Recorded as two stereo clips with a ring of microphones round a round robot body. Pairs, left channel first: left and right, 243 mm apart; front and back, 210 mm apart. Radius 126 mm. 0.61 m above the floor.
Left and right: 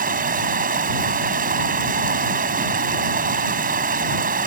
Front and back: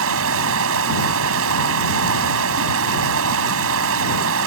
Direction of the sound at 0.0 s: 145° right.